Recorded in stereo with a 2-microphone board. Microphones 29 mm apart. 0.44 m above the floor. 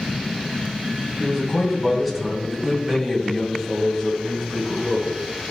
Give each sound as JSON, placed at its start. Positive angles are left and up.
{"t": 1.2, "sound": "a man speaking", "side_deg": -5, "distance_m": 2.5}